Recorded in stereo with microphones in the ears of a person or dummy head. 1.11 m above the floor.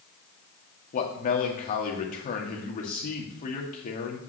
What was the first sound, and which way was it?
A man speaking, 40° left (ahead or behind).